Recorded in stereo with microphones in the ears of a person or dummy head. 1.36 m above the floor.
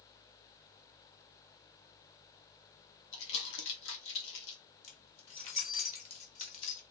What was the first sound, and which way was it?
Crumpling, 75° left (ahead or behind).